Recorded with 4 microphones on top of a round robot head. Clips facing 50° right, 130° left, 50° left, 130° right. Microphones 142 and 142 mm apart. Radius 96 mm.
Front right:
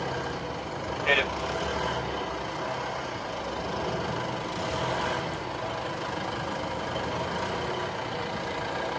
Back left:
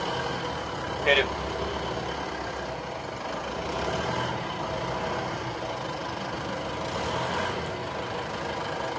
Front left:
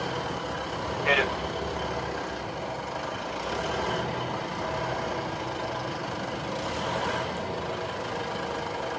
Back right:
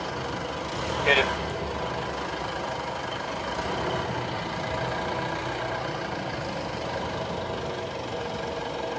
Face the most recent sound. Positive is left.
turn(degrees=175)